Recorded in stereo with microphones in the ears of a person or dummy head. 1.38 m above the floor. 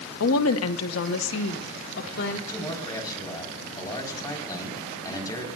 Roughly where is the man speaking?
Centre.